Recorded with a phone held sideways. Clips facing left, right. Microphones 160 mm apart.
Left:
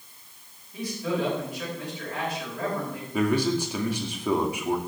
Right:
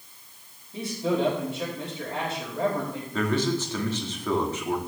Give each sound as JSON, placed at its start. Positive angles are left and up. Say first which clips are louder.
{"t": 0.7, "sound": "a man speaking", "louder": "right 3 dB", "side_deg": -30, "distance_m": 5.5}
{"t": 3.1, "sound": "a man speaking", "louder": "left 2 dB", "side_deg": 15, "distance_m": 2.0}